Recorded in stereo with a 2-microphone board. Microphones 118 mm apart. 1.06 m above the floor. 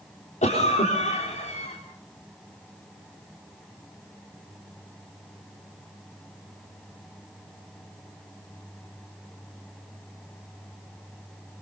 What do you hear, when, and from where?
0.4 s a cough: 80° left, 3.5 m